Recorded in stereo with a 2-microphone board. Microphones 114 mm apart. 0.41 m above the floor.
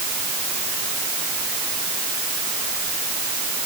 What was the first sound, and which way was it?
Only background noise.